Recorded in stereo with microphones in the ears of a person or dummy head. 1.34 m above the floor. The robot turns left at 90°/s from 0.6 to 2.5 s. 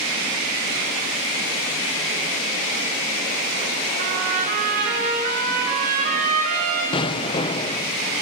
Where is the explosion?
20° left (ahead or behind), 0.9 m.